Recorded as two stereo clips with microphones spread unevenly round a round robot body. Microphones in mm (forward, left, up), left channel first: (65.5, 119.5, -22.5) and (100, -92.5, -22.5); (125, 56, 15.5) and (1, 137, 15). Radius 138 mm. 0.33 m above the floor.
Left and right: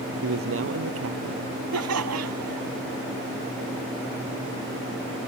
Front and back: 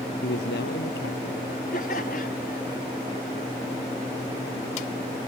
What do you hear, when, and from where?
0.2 s a man speaking: 65° right
1.7 s laughter: 95° right